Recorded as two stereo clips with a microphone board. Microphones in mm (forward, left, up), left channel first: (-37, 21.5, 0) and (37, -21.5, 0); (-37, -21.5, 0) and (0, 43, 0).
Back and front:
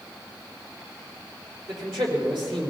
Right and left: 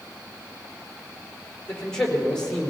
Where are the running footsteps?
I don't hear running footsteps.